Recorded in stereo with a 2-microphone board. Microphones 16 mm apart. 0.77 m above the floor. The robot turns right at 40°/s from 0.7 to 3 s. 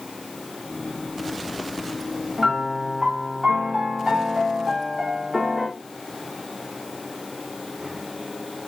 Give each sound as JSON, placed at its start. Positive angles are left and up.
{"t": 2.4, "sound": "a piano", "side_deg": -45, "distance_m": 1.5}